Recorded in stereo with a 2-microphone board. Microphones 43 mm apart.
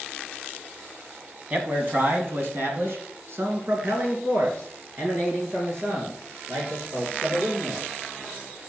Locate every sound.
1.5 s a man speaking: 35° right (ahead or behind), 1.3 m; by 7.9 s 65° right (ahead or behind), 4.5 m